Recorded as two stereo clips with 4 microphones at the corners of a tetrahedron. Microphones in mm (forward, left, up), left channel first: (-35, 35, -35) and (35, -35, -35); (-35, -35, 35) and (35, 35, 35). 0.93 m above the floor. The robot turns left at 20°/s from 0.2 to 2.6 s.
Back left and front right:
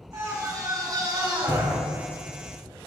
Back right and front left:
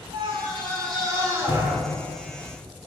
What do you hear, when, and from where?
0.1 s a scream: 15° left, 3.5 m; by 1.8 s 20° right, 3.5 m